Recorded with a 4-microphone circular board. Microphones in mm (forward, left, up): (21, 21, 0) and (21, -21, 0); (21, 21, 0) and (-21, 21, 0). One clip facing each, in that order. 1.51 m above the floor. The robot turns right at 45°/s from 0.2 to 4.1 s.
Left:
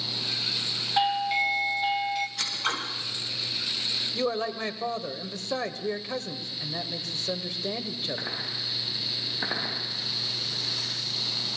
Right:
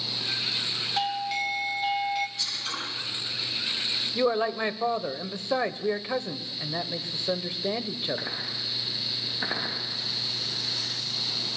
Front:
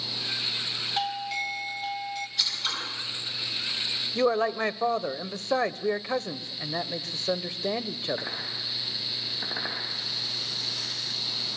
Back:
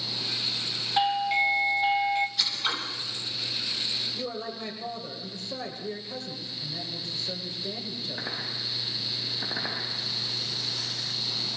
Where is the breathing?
I don't hear breathing.